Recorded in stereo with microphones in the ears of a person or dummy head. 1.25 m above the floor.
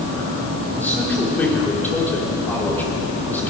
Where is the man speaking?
5° left (ahead or behind), 3 m.